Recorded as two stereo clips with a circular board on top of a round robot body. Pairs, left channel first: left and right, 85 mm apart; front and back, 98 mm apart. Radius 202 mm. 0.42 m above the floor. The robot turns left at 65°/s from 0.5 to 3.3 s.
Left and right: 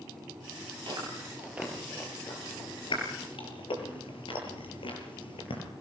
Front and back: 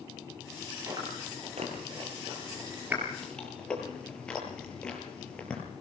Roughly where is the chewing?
Behind right.